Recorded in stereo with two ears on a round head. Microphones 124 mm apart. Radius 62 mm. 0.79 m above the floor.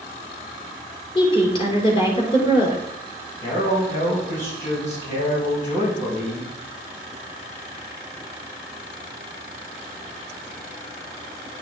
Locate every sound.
1.1 s a woman speaking: 40° left (ahead or behind), 2.5 m
3.4 s a man speaking: 55° left (ahead or behind), 3.5 m